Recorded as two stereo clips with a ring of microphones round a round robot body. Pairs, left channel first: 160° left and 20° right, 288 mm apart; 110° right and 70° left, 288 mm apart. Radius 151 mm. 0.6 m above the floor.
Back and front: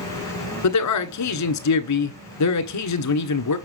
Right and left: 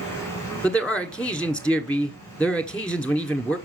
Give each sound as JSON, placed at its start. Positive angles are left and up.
{"t": 0.6, "sound": "a man speaking", "azimuth_deg": 160, "distance_m": 1.4}